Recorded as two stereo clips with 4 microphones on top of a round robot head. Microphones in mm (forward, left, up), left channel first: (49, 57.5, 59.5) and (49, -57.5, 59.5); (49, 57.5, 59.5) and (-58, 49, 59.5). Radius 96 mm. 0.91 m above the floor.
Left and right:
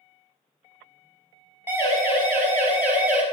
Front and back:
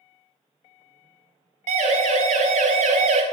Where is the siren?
165° right, 6 m; by 3.2 s 170° right, 4.5 m.